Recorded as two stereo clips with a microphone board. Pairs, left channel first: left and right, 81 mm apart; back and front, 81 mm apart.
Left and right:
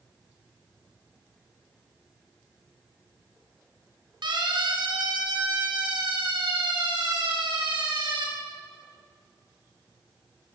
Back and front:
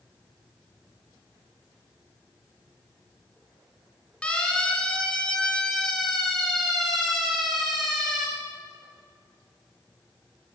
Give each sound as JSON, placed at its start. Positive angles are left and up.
{"t": 4.2, "sound": "a siren", "azimuth_deg": -105, "distance_m": 5.0}